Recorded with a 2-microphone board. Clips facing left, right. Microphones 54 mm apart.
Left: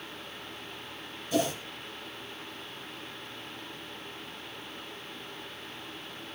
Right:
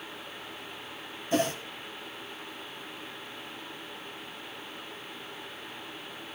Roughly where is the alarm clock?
No alarm clock in this recording.